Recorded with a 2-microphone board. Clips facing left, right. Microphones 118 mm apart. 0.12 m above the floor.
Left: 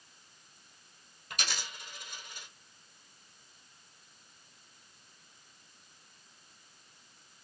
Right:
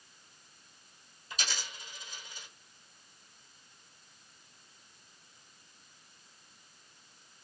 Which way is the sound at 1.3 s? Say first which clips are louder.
Left 1 dB; 65° left (ahead or behind).